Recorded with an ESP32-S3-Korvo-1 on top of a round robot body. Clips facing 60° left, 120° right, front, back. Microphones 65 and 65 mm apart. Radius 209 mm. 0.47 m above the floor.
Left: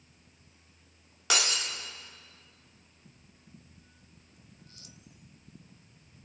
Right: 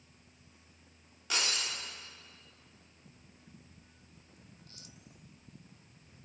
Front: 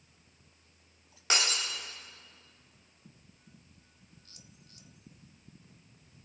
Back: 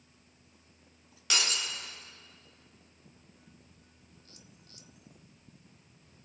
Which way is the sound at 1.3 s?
60° left.